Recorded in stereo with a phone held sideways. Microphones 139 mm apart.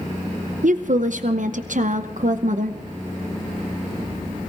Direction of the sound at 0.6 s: 70° right (ahead or behind).